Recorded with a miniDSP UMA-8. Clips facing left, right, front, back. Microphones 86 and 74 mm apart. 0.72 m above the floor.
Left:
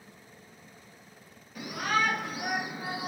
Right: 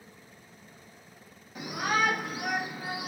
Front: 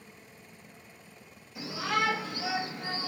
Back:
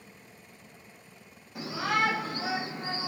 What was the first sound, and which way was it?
A shout, 155° right.